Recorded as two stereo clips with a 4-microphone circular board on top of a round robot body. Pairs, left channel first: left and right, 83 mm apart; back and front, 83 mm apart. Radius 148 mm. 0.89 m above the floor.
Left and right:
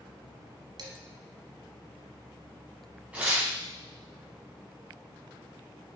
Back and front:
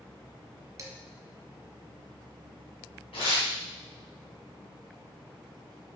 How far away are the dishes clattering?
About 1.2 m.